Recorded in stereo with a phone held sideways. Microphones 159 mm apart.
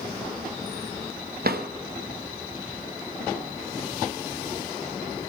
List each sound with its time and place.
1.4 s a drawer: 75° right (ahead or behind), 0.6 m